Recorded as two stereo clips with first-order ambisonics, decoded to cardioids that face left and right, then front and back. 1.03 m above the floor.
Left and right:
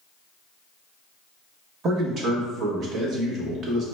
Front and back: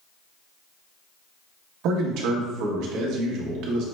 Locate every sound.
1.8 s a man speaking: 150° right, 1.1 m